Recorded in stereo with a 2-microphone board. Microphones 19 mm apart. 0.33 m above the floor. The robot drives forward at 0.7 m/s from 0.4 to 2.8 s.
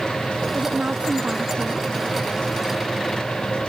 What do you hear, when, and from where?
0.6 s a woman speaking: 85° right; by 1.9 s 80° right